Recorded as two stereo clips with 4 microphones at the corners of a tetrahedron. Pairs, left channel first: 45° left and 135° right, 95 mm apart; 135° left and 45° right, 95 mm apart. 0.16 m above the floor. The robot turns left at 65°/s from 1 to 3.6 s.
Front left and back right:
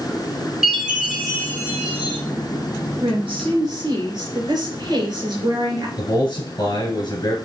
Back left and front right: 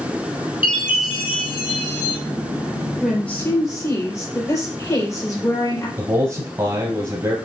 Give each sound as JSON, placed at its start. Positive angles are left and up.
{"t": 0.6, "sound": "a chime", "azimuth_deg": 145, "distance_m": 3.0}
{"t": 3.0, "sound": "a woman speaking", "azimuth_deg": -130, "distance_m": 3.5}
{"t": 6.0, "sound": "a man speaking", "azimuth_deg": 0, "distance_m": 2.5}